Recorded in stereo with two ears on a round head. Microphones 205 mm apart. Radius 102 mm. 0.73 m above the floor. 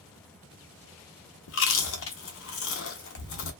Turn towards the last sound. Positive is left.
turn(degrees=60)  # may be behind; listen again after turning